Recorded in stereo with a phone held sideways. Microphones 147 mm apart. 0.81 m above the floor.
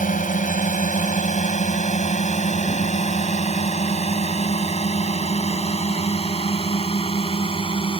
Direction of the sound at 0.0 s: 65° left (ahead or behind).